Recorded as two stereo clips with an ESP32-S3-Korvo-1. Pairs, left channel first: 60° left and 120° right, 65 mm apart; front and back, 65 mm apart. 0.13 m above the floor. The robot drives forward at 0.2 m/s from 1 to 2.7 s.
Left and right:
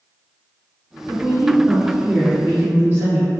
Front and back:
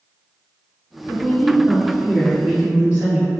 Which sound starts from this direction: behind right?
A woman speaking, at 1.1 s.